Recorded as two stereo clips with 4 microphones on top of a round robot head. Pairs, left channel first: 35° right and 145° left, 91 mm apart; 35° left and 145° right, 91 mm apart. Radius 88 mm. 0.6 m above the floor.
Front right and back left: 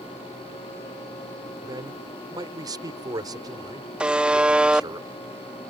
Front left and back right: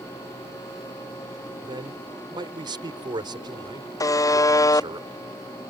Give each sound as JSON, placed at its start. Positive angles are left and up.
{"t": 1.6, "sound": "a man speaking", "azimuth_deg": -175}
{"t": 4.0, "sound": "a buzzer", "azimuth_deg": 70}